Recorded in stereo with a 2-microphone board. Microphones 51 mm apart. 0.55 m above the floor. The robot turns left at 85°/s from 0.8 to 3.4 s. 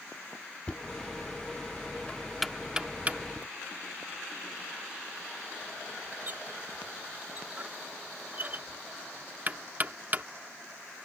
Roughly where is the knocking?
Left.